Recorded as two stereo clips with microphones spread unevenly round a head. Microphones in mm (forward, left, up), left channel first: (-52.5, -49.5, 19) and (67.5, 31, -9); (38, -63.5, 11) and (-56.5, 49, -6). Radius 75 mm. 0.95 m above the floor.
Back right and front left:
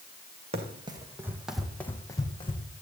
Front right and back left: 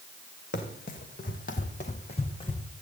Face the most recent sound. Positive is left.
turn(degrees=-105)